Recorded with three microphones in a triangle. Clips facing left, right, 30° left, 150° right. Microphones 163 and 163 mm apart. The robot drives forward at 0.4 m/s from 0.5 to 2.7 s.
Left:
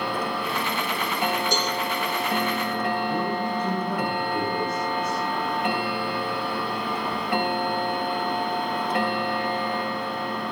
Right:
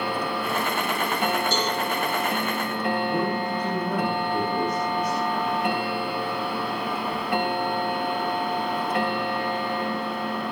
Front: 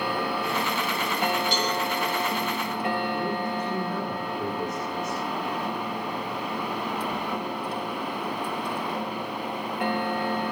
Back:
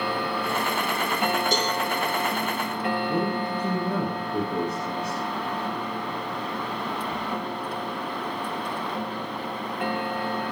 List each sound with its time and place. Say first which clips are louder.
1.5 s a cowbell: right 1 dB, back 1 dB; 165° left, 4.5 m
3.1 s a man speaking: right 1 dB, back 2 dB; 170° right, 10 m